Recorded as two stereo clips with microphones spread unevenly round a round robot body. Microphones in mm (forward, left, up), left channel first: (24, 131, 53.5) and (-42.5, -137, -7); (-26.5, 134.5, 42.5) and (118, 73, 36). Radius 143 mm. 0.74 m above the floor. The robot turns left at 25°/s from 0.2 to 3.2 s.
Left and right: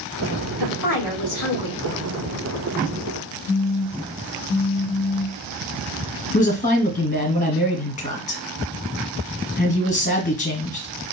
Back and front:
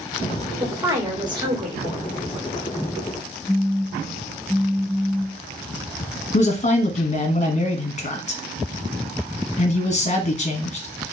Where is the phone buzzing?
55° left, 1.0 m.